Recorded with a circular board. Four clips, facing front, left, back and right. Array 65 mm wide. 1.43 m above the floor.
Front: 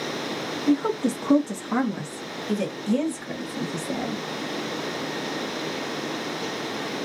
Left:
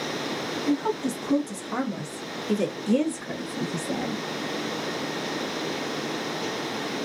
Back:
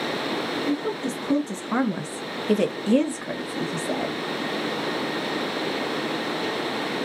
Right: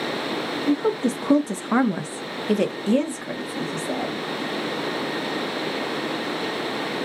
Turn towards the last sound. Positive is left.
turn(degrees=-150)